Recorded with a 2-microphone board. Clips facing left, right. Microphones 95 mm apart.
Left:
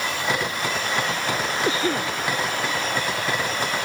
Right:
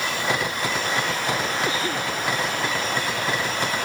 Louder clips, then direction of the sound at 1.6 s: Left 2 dB; 25° left (ahead or behind).